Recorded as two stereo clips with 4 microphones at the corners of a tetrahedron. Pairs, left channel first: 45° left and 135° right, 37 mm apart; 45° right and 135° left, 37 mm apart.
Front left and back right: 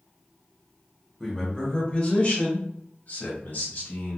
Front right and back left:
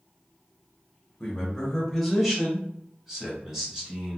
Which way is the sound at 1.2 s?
5° right.